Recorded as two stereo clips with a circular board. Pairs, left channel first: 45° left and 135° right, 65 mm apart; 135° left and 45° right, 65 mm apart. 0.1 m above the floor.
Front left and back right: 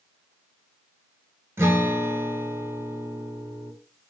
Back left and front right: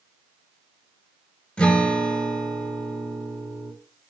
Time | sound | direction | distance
1.6 | a guitar | 160° right | 0.7 m